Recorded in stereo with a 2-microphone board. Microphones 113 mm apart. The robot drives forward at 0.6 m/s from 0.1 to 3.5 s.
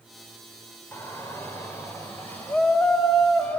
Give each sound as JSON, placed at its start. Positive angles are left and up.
{"t": 0.9, "sound": "a shout", "side_deg": 20, "distance_m": 2.5}